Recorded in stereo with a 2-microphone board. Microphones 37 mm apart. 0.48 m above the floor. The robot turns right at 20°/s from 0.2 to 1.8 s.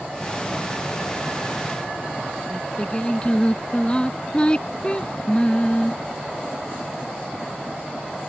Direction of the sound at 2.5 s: 25° left (ahead or behind).